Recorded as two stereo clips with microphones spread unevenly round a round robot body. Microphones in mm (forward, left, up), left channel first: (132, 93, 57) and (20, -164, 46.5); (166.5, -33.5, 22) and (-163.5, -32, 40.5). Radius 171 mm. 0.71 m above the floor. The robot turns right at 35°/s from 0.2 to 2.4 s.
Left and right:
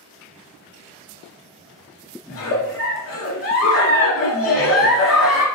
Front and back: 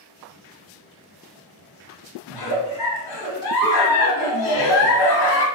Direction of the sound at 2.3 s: 25° left.